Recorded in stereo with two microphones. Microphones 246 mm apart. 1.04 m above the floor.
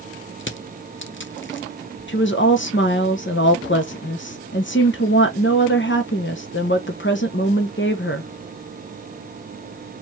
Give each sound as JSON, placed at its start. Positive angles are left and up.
{"t": 0.4, "sound": "crushing", "side_deg": 50, "distance_m": 0.7}
{"t": 2.1, "sound": "a woman speaking", "side_deg": 45, "distance_m": 0.7}